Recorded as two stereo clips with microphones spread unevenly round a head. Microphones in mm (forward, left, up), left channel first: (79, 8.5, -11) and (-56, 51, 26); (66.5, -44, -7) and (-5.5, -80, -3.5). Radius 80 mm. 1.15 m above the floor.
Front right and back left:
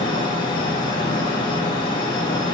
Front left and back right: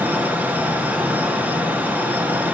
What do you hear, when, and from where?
0.0 s a fan: 85° right, 0.8 m